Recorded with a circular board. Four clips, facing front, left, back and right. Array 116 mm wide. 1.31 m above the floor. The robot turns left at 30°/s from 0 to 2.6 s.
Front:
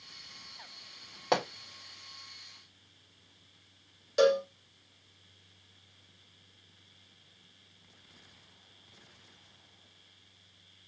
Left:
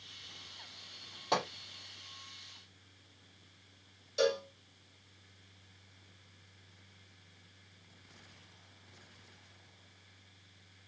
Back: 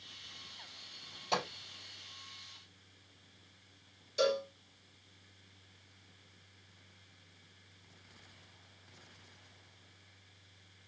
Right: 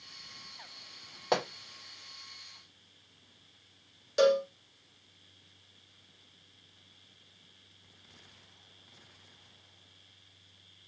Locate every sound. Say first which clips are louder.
1.3 s a pop: right 3 dB, front 6 dB; 25° right, 3 m; by 1.5 s 30° right, 3 m
4.2 s a cowbell: right 7 dB, front 7 dB; 40° right, 1.8 m